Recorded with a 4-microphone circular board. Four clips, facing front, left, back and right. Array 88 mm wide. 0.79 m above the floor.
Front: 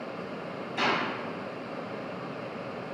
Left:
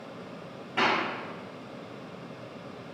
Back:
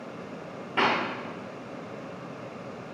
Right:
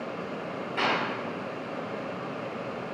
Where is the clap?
175° left, 2.5 m.